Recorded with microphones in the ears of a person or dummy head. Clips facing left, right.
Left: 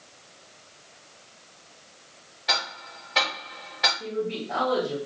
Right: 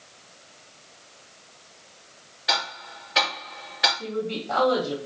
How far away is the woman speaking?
About 1.2 m.